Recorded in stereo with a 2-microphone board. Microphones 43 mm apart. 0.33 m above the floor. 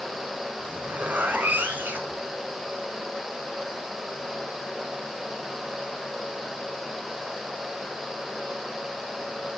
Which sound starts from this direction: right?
A zipper, at 0.6 s.